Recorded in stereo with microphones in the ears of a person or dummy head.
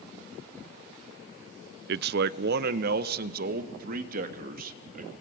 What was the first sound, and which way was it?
A man speaking, 55° right (ahead or behind).